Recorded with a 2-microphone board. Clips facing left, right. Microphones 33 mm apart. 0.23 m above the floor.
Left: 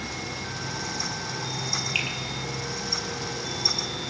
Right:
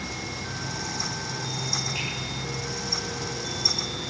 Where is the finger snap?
70° left (ahead or behind), 4.5 m.